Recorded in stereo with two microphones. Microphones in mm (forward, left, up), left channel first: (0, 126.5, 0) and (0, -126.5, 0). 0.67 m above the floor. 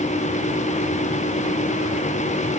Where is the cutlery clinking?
I don't hear cutlery clinking.